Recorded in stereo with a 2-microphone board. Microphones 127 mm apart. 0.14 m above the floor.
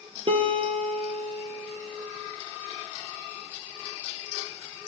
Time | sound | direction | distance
0.3 | a guitar | 45° right (ahead or behind) | 0.7 m